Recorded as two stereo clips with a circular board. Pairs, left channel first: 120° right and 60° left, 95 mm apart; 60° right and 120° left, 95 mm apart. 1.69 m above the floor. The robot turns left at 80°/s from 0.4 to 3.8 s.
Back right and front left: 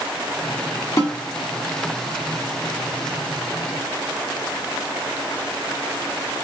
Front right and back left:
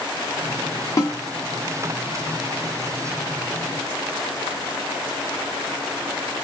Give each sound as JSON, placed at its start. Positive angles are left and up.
{"t": 1.0, "sound": "a snare drum", "azimuth_deg": -75, "distance_m": 1.6}